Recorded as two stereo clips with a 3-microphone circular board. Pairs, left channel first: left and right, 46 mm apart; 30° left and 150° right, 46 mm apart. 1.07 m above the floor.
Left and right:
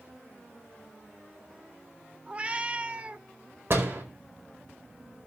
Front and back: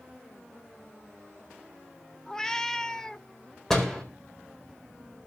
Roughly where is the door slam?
Ahead right.